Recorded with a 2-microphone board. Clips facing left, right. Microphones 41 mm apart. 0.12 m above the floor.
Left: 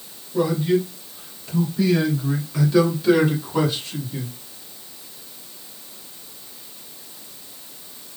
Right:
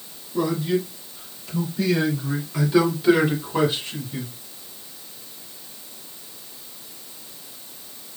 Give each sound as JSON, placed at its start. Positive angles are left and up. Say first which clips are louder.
{"t": 0.3, "sound": "a man speaking", "louder": "left 3 dB", "side_deg": 15, "distance_m": 2.0}